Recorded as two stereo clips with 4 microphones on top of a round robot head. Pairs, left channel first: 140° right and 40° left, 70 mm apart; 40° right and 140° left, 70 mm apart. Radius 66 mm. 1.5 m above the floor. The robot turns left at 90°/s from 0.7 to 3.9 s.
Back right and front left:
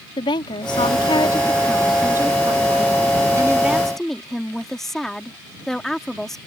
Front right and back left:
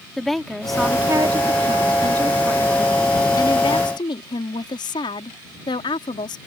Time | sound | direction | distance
0.2 | a woman speaking | 125° right | ?